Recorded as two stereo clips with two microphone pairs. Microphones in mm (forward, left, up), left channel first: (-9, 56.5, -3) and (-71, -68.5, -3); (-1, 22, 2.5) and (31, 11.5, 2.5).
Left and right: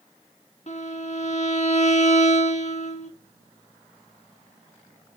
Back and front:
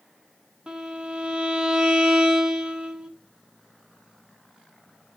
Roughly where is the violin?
Ahead left.